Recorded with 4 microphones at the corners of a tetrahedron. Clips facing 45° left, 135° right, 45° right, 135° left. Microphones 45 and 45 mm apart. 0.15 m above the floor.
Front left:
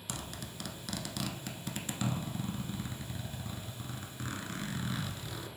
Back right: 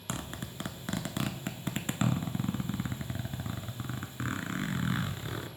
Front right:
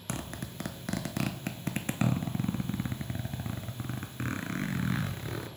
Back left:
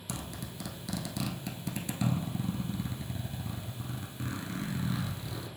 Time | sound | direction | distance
0.1 | a zipper | 80° right | 0.6 m